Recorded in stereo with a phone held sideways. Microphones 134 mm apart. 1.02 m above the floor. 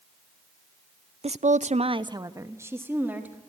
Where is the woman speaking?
50° right (ahead or behind), 0.5 m; by 3.4 s 10° right (ahead or behind), 2.0 m.